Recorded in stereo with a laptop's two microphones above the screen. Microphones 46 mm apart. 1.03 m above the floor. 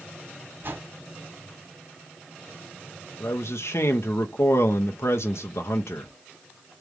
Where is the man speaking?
70° left (ahead or behind), 0.7 m.